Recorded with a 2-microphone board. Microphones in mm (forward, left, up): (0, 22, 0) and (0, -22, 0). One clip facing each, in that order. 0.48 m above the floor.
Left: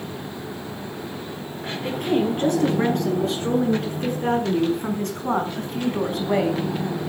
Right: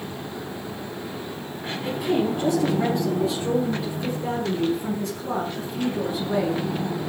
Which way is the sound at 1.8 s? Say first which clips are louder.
Left 1 dB; 55° left (ahead or behind).